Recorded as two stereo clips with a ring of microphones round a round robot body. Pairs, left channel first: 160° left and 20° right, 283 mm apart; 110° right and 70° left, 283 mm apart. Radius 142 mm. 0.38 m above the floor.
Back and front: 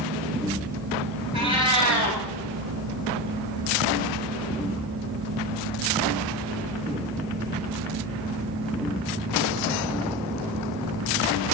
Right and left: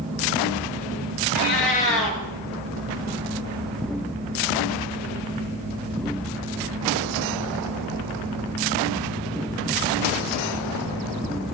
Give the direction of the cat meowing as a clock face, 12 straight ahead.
3 o'clock.